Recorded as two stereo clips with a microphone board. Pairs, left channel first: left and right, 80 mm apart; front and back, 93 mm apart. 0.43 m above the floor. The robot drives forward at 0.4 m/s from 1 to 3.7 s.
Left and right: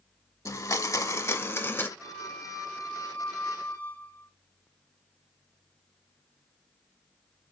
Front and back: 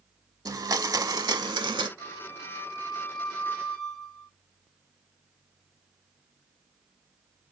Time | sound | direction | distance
0.5 | a blender | 135° left | 0.6 m
2.0 | a flute | 20° left | 1.0 m